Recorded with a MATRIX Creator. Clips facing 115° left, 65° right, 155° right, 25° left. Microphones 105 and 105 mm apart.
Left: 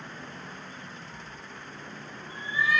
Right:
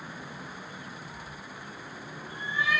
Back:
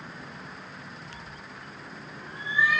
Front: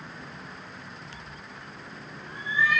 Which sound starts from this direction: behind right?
A cat meowing, at 1.1 s.